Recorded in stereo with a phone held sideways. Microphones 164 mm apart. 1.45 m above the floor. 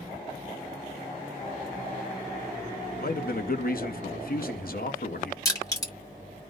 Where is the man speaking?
65° left (ahead or behind), 0.6 m.